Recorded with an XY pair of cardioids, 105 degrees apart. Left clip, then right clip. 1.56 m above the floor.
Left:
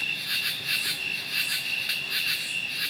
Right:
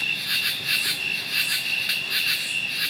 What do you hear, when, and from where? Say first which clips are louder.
0.0 s an insect: right 4 dB; 25° right, 1.0 m